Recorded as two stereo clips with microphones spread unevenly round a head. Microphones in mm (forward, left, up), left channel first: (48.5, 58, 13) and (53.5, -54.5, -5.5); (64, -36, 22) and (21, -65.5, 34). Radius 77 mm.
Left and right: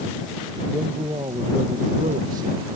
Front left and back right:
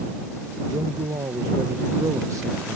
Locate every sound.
0.7 s a man speaking: 160° right; by 2.8 s 110° right